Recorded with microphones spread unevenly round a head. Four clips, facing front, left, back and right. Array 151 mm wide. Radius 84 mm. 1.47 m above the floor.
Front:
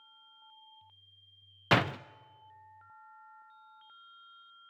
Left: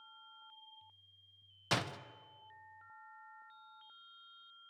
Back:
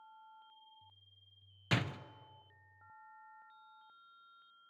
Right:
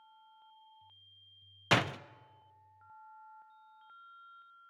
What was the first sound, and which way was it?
A door slam, 25° right.